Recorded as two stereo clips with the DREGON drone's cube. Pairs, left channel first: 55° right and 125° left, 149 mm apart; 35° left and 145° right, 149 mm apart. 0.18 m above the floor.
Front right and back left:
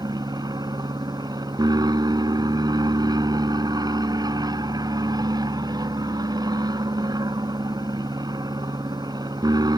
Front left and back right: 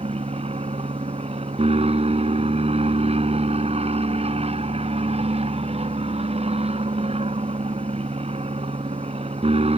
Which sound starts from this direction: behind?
An aircraft, at 0.0 s.